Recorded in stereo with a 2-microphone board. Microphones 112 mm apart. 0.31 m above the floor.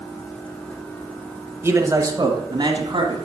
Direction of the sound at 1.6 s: 20° right (ahead or behind).